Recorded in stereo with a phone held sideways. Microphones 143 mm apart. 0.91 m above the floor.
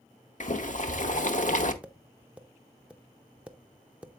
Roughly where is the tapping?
Centre.